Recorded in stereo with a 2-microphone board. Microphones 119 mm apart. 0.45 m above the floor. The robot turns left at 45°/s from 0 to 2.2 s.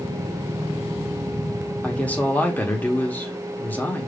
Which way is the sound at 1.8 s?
10° left (ahead or behind).